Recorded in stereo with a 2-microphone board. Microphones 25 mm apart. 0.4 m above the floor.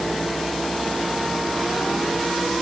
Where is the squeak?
I don't hear a squeak.